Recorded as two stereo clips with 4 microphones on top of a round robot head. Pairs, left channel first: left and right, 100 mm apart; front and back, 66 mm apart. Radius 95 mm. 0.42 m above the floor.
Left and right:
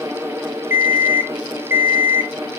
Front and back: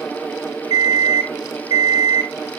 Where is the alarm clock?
155° right, 1.5 m.